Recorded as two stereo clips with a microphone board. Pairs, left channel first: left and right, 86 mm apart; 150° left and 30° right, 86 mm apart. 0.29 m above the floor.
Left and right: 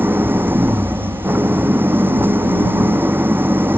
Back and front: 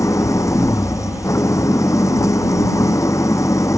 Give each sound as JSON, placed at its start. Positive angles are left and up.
{"t": 0.0, "sound": "an engine running", "azimuth_deg": -155}